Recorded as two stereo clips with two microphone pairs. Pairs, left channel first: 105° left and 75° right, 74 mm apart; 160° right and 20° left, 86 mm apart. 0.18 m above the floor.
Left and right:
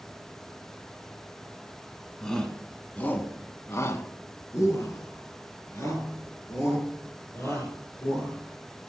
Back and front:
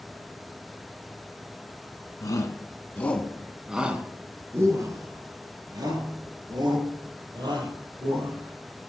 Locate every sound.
2.2 s a shout: 175° right, 1.5 m; by 8.9 s 50° left, 5 m